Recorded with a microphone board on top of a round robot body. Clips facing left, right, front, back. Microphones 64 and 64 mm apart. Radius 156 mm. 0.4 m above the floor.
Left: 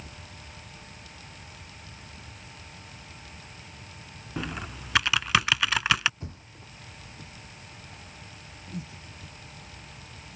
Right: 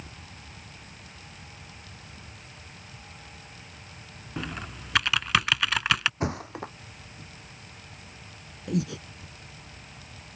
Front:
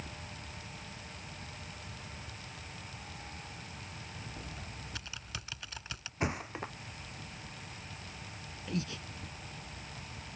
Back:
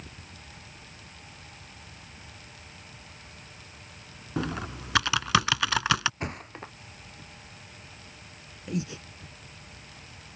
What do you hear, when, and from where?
4.4 s typing on a keyboard: 175° left
6.2 s a thud: 85° right
8.7 s breathing: 110° right